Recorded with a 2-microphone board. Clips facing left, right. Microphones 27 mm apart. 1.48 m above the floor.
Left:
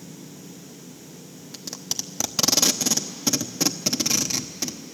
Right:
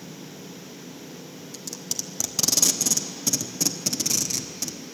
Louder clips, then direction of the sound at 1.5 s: Left 2 dB; 30° left (ahead or behind).